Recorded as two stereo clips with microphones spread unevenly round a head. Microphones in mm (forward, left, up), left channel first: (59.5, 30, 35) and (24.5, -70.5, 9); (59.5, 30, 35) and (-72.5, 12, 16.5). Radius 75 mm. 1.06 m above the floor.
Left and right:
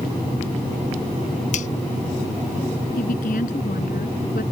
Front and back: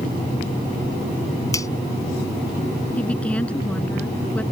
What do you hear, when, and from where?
1.5 s a finger snap: 75° left
3.0 s a woman speaking: 90° left